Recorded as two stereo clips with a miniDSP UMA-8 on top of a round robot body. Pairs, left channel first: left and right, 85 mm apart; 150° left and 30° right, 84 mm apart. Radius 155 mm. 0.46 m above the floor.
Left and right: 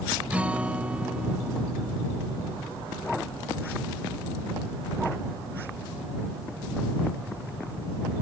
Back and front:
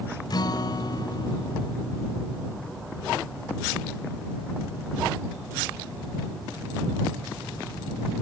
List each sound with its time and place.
0.3 s a guitar: 165° right